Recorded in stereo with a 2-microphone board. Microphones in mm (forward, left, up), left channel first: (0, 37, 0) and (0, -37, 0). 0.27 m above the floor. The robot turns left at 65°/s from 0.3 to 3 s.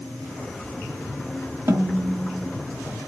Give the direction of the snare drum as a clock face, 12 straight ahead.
2 o'clock.